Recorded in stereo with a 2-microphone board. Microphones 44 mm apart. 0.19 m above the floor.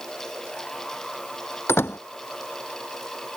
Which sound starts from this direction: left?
A door slam, at 1.7 s.